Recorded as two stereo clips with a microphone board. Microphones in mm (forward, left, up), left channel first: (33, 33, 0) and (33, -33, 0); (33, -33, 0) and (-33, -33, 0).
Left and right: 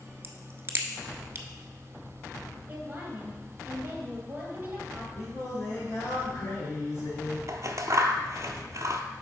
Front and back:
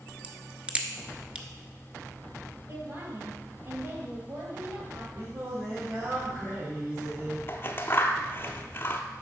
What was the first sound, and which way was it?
A crack, 120° right.